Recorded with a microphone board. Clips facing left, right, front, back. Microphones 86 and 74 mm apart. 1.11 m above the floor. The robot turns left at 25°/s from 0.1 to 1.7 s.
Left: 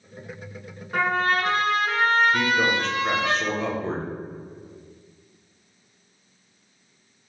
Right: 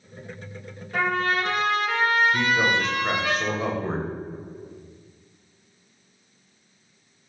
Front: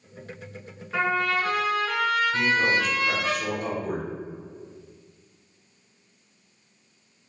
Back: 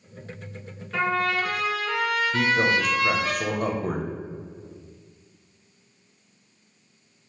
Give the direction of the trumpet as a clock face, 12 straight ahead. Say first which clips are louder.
Left 1 dB, even; 10 o'clock.